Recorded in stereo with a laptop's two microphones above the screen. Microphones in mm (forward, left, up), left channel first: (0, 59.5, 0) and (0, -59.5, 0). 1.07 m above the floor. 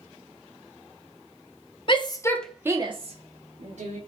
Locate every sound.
1.9 s a shout: 40° left (ahead or behind), 0.8 m; by 4.0 s 75° right (ahead or behind), 1.4 m